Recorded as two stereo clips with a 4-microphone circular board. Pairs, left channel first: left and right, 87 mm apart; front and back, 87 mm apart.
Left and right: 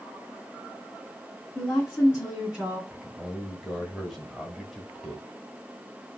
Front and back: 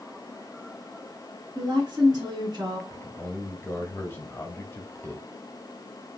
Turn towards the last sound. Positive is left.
turn(degrees=-5)